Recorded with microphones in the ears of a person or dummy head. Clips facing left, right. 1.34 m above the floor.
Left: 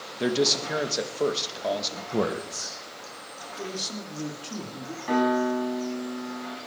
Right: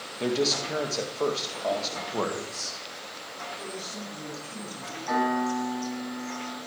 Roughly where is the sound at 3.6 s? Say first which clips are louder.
Left 6 dB; left.